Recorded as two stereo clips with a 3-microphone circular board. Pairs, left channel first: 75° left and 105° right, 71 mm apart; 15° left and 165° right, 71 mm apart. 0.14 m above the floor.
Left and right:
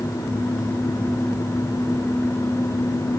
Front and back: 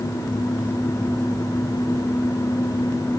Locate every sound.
Only background noise.